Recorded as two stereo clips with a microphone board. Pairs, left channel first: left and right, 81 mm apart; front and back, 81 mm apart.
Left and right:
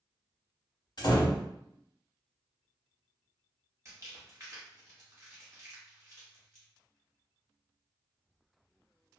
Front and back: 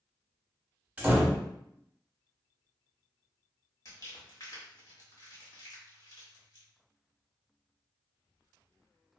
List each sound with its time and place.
1.0 s a door slam: 110° left, 0.9 m
3.9 s crumpling: 40° right, 1.1 m